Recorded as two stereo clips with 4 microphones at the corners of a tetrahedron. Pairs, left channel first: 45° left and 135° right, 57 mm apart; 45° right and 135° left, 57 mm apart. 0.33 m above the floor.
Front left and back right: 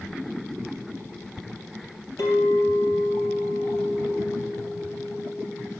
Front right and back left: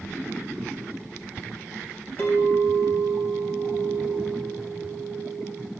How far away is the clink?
About 3.5 m.